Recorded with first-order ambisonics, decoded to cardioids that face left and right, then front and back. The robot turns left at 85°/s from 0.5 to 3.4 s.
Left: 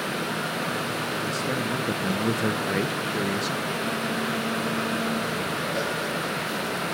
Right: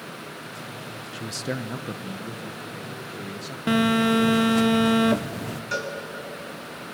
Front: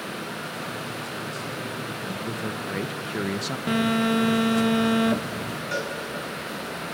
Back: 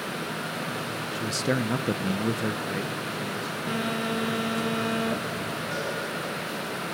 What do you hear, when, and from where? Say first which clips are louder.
1.1 s a man speaking: left 5 dB, back 5 dB; 140° right, 0.7 m; by 3.6 s 25° left, 0.7 m
3.7 s a phone buzzing: right 5 dB, front 6 dB; 70° right, 1.1 m
5.7 s a cowbell: right 3 dB, front 4 dB; 70° right, 6.5 m